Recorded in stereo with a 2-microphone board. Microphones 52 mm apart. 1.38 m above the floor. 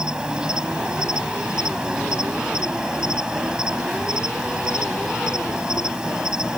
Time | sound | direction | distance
0.0 | an insect | 15° right (ahead or behind) | ?